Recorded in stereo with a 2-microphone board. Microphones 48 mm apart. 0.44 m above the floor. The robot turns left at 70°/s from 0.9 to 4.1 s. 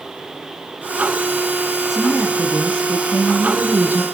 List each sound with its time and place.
1.9 s a woman speaking: 5° left, 5 m; by 4.0 s 145° right, 5 m